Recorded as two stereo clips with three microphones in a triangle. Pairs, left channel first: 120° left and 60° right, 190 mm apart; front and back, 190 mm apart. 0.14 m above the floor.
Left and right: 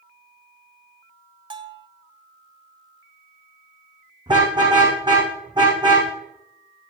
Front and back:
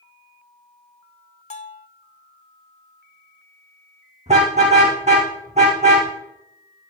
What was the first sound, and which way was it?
A bell, 15° right.